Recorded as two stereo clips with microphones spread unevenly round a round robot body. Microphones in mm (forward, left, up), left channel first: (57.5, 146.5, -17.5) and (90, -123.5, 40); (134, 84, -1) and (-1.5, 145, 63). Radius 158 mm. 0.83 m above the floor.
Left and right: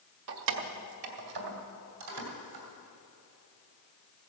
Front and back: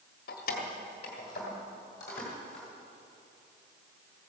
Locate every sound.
0.3 s keys jangling: 65° right, 0.9 m; by 2.6 s 110° right, 3 m